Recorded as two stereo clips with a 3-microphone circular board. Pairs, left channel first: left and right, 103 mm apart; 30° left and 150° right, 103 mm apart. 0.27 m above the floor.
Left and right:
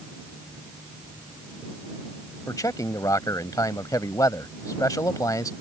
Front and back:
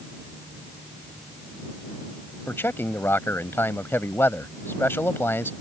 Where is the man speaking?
80° left.